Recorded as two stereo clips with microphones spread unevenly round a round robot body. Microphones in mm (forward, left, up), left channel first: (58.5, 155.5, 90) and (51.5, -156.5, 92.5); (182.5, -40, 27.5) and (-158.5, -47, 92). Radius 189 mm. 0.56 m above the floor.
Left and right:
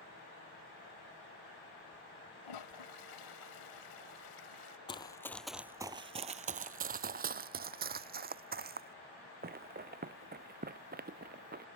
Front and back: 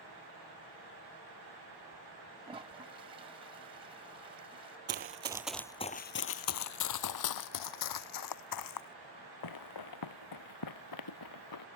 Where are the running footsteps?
160° left; by 11.7 s 30° right.